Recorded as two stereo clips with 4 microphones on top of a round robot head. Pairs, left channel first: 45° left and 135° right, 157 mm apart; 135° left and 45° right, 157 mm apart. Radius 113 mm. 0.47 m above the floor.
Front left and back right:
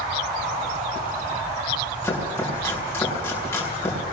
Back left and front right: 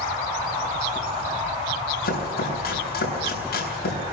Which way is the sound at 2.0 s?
120° left.